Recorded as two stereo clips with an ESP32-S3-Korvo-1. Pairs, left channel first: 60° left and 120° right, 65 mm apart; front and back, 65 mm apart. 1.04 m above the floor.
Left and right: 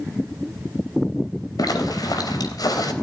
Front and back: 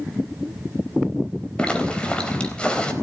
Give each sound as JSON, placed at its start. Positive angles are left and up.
{"t": 1.6, "sound": "a zipper", "azimuth_deg": 75, "distance_m": 4.0}